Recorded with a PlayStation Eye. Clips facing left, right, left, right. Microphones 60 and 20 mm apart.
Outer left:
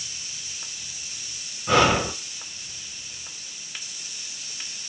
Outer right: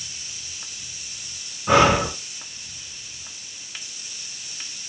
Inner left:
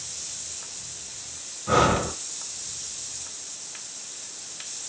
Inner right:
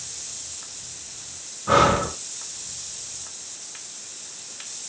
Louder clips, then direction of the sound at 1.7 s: Outer right 3 dB, inner right 3 dB; 15° right (ahead or behind).